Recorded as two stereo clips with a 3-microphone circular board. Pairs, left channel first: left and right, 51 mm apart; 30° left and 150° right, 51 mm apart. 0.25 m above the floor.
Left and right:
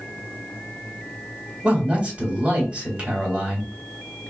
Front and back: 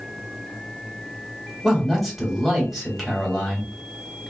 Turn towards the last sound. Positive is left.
turn(degrees=-60)